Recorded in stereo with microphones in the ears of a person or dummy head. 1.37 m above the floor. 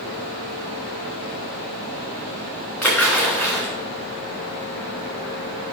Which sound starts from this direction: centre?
A splash, at 2.8 s.